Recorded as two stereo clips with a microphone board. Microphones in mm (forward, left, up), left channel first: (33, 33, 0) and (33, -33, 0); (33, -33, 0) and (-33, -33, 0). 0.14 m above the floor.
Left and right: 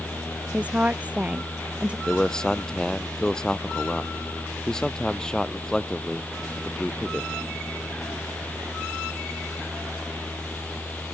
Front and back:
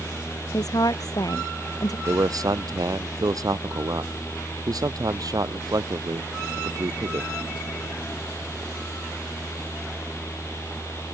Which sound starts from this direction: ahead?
A woman speaking, at 0.5 s.